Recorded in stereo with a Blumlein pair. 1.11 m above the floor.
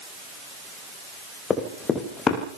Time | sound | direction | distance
1.5 | running footsteps | 20° left | 4.5 m